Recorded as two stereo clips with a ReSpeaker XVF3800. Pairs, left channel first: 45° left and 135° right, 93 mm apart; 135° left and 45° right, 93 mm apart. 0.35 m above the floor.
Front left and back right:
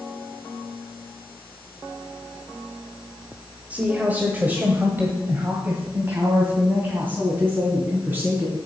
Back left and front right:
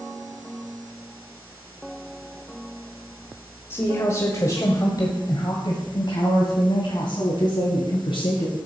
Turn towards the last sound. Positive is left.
turn(degrees=160)